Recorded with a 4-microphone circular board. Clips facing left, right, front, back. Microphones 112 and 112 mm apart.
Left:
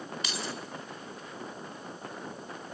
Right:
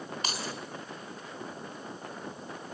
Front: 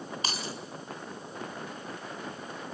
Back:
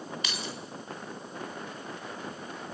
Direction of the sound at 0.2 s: 50° right.